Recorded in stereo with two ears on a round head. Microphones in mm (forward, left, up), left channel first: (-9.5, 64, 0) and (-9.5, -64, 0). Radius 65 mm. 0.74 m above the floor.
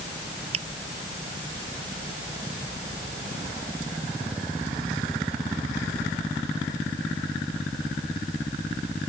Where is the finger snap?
45° right (ahead or behind).